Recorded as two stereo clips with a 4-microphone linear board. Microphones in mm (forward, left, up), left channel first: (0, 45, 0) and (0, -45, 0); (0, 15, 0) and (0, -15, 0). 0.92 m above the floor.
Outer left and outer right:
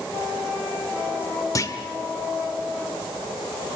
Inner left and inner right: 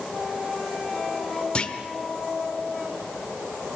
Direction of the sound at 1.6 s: 40° left (ahead or behind).